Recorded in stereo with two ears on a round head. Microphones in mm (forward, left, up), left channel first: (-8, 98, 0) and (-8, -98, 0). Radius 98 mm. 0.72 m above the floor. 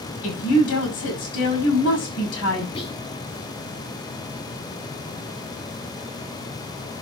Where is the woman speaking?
75° left (ahead or behind), 5.5 m.